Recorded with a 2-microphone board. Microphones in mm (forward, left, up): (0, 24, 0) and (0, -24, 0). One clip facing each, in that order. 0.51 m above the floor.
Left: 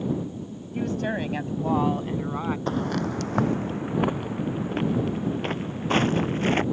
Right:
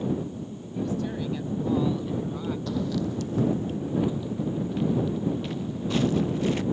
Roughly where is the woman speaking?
Left.